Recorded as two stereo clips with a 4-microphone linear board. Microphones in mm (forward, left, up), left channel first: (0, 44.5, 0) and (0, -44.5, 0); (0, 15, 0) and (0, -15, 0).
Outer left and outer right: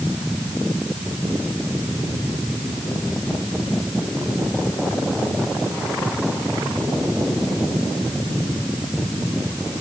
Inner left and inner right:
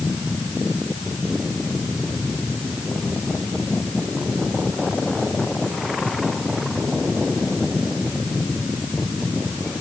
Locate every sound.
Only background noise.